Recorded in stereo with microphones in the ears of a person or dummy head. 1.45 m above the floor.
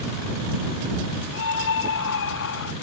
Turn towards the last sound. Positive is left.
turn(degrees=70)  # may be behind; listen again after turning